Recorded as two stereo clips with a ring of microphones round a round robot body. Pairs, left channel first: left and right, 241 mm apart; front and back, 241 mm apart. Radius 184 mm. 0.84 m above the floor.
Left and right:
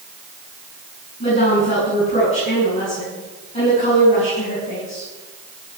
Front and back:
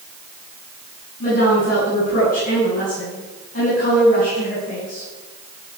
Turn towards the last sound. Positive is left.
turn(degrees=55)